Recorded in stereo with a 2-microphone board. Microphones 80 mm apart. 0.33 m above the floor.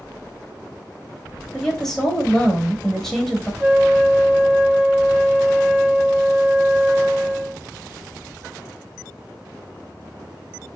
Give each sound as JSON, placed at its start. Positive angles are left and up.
{"t": 1.5, "sound": "a woman speaking", "side_deg": 5, "distance_m": 1.1}
{"t": 3.6, "sound": "a flute", "side_deg": -25, "distance_m": 0.9}